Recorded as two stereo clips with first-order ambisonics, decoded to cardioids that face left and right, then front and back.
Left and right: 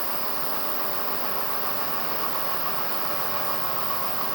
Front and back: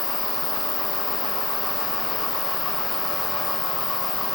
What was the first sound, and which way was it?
An insect, 20° right.